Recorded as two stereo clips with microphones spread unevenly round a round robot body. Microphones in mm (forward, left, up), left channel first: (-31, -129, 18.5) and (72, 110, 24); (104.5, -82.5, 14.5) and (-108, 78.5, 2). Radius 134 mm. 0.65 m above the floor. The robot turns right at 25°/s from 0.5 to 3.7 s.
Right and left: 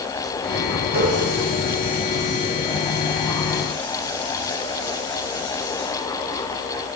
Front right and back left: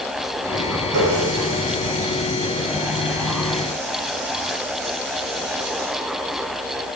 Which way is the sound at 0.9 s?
125° left.